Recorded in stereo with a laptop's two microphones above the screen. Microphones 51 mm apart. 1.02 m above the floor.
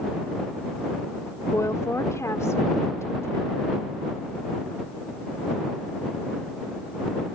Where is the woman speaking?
85° left; by 3.8 s 65° left (ahead or behind).